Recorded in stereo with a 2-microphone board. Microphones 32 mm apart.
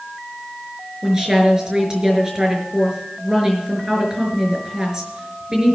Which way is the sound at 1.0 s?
20° right (ahead or behind).